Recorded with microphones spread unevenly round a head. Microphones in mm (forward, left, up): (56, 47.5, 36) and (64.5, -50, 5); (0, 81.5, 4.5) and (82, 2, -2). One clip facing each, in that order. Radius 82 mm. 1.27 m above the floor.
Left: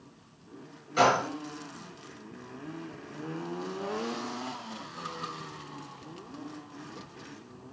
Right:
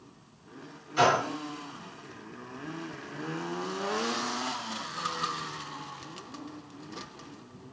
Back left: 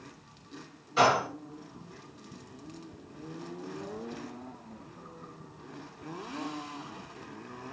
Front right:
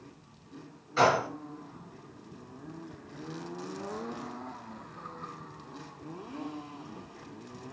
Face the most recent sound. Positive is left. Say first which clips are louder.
# even, even
turn(degrees=60)